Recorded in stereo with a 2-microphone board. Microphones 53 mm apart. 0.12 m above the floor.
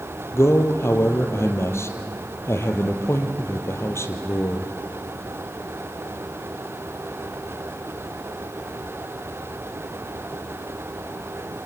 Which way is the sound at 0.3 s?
65° left (ahead or behind).